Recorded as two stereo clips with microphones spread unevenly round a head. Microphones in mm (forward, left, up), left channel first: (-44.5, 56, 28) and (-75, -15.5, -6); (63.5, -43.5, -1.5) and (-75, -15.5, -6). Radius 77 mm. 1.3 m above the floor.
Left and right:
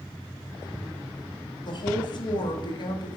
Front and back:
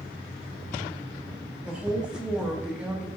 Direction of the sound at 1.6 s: 85° left.